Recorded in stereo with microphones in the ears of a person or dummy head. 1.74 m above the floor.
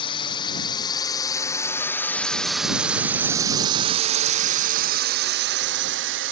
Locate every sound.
0.0 s a drone: 30° left (ahead or behind); by 6.3 s 65° right (ahead or behind)